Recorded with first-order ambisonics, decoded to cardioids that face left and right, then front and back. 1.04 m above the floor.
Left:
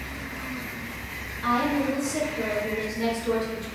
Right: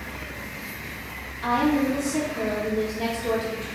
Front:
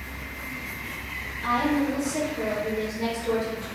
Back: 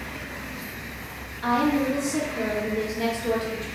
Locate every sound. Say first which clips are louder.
1.4 s a woman speaking: right 2 dB, back 2 dB; 150° right, 1.9 m